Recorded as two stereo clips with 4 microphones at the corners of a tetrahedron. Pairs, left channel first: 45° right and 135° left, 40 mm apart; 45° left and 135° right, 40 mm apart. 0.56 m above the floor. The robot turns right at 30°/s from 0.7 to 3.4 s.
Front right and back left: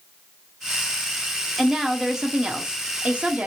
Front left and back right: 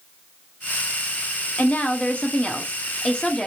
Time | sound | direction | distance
1.6 | a woman speaking | 55° left | 0.8 m